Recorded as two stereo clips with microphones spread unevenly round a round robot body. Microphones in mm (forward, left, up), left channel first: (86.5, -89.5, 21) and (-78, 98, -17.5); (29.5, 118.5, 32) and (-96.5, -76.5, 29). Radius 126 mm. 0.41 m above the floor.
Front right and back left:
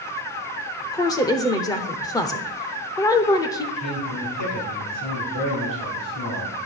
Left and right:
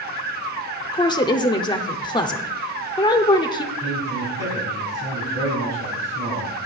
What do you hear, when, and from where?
0.9 s a woman speaking: 25° left, 0.7 m
3.8 s a man speaking: 45° right, 4.5 m